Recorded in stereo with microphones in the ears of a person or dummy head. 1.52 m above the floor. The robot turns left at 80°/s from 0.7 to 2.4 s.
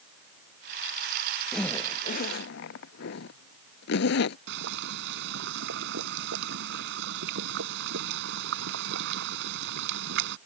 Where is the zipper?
Centre (ahead or behind); by 4.4 s 70° left (ahead or behind).